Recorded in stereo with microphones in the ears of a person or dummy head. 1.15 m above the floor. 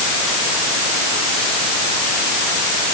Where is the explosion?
No explosion in this recording.